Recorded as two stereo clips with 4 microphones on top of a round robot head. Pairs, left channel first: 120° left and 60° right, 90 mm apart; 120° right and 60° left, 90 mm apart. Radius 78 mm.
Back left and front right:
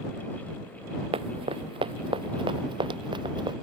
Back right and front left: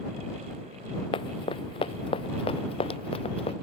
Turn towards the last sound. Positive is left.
turn(degrees=-100)